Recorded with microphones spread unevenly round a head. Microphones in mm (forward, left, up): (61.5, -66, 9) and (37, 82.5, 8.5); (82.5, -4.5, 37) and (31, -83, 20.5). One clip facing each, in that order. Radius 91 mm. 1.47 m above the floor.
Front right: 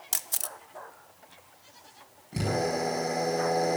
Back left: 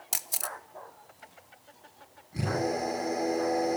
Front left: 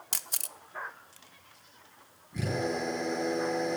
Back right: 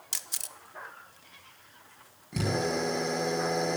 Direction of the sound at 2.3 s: 130° right.